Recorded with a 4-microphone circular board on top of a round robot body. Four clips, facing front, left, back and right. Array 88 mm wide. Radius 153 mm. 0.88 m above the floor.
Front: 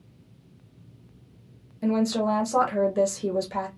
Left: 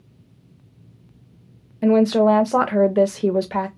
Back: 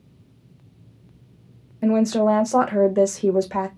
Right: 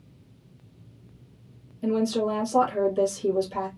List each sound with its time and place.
1.8 s a woman speaking: 115° left, 0.7 m